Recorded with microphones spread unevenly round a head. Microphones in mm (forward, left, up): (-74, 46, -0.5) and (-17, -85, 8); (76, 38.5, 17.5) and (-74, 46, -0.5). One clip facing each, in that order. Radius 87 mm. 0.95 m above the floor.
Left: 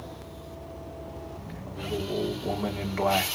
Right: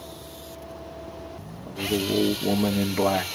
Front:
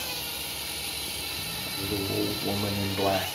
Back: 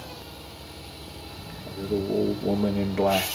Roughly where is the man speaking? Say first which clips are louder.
Right 6 dB, back 5 dB; behind right.